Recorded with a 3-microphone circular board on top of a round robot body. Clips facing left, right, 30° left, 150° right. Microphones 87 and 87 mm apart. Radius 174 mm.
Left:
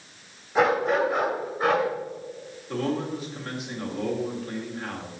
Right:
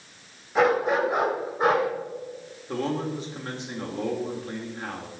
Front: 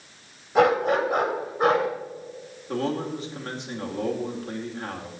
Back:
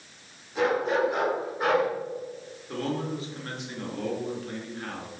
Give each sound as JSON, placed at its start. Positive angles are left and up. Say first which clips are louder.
{"t": 0.6, "sound": "a dog barking", "louder": "even, front 5 dB", "azimuth_deg": 0, "distance_m": 1.9}
{"t": 2.7, "sound": "a man speaking", "louder": "even, front 3 dB", "azimuth_deg": -30, "distance_m": 2.5}